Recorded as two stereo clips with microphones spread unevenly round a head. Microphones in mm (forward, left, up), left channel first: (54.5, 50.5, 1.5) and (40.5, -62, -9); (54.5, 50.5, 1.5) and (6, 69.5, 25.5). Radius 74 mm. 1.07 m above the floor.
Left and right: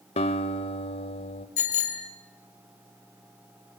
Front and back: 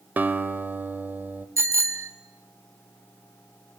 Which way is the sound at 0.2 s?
125° left.